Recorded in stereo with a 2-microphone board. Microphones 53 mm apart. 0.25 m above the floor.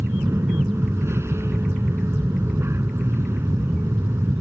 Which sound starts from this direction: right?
An aircraft, at 0.0 s.